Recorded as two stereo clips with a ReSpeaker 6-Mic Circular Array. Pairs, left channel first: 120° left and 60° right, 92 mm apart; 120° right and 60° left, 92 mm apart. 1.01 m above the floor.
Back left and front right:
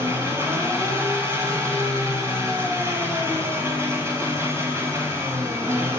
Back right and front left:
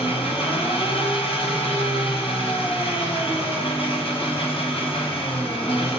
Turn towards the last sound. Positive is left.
turn(degrees=-125)